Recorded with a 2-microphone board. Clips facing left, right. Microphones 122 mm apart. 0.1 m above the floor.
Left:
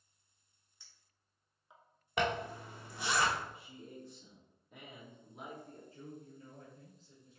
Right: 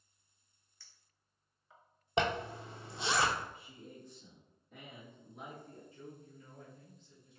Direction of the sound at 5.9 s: 35° left (ahead or behind).